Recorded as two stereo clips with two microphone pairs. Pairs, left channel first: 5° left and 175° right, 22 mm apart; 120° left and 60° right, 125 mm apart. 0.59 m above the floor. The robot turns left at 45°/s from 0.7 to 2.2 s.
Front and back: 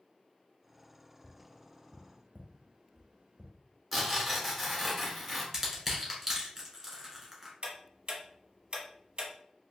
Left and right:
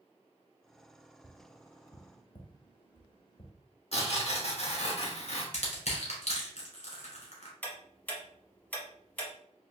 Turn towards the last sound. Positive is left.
turn(degrees=-170)